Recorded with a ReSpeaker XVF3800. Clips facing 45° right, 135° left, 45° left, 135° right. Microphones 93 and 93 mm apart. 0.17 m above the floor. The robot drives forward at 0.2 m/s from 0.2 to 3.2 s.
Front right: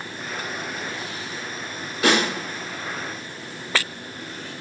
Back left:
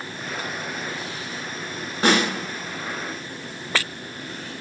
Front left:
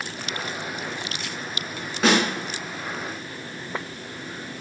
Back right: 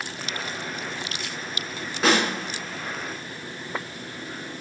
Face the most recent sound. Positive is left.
turn(degrees=145)